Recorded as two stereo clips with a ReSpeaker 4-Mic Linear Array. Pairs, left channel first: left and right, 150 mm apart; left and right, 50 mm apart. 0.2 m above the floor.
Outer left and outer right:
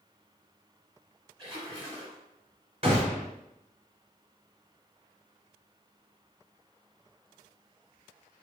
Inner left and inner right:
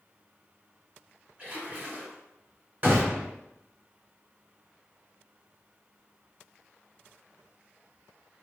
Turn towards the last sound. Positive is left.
turn(degrees=-40)  # may be behind; listen again after turning